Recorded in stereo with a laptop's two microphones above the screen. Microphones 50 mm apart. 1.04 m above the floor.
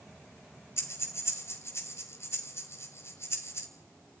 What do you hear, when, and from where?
0.8 s breathing: 55° left (ahead or behind), 3 m